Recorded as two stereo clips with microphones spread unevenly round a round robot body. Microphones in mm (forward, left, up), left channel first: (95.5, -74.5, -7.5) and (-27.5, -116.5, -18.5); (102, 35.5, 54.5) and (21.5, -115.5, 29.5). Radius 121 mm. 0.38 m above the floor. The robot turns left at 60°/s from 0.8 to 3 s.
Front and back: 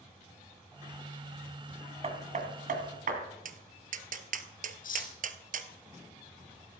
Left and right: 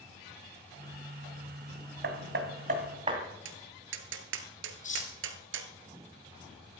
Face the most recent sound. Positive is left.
turn(degrees=15)